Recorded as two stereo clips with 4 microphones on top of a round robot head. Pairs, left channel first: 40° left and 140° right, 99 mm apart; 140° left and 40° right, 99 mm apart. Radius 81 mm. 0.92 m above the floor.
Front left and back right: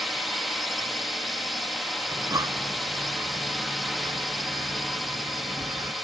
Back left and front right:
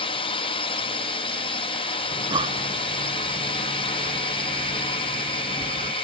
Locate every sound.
0.0 s a drone: 130° left
2.1 s breathing: 80° right